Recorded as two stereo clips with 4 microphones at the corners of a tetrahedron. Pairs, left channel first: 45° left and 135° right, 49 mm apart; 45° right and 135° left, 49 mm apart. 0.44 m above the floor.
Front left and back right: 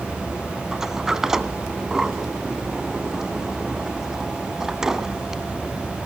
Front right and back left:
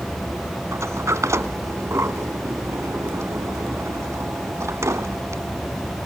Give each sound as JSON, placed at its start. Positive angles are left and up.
{"t": 0.7, "sound": "a sliding door", "azimuth_deg": 145, "distance_m": 1.3}